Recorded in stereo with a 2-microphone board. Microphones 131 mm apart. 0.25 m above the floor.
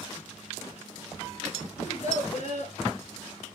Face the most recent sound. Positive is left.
turn(degrees=55)  # may be behind; listen again after turning